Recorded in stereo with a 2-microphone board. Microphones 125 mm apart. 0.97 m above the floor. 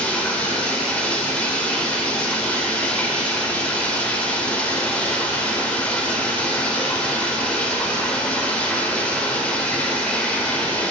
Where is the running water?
10° left (ahead or behind), 0.7 m.